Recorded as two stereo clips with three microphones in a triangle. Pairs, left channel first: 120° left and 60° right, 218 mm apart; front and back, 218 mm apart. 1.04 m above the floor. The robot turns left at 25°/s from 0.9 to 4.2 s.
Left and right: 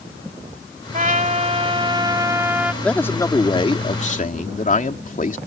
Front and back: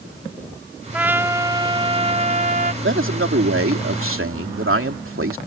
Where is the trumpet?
95° right; by 2.7 s 140° right.